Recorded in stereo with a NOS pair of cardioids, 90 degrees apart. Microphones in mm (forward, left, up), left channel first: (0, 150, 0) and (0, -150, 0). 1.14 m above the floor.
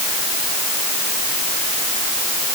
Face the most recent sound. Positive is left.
No sound to turn to.